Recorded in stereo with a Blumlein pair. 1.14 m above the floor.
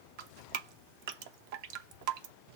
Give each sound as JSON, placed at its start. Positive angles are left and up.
{"t": 0.2, "sound": "dripping", "azimuth_deg": -45, "distance_m": 0.6}